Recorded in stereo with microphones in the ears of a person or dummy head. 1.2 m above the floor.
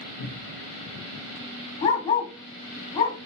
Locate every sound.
0.2 s a cupboard door: 80° left, 0.5 m
1.8 s a dog barking: 30° left (ahead or behind), 1.0 m